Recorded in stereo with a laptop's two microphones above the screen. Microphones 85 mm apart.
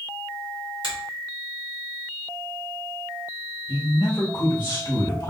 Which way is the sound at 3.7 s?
50° left (ahead or behind).